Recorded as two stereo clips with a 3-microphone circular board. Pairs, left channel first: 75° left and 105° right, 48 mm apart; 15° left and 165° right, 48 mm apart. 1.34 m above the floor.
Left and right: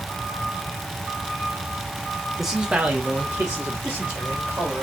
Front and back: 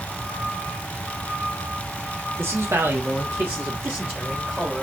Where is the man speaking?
170° left, 1.3 m; by 4.8 s 90° right, 3 m.